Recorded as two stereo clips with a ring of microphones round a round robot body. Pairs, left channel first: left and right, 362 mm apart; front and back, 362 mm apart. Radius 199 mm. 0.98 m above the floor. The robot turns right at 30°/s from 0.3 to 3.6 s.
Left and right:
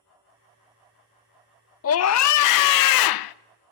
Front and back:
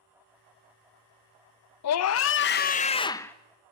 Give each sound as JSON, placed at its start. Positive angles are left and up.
{"t": 1.8, "sound": "a scream", "azimuth_deg": 40, "distance_m": 0.6}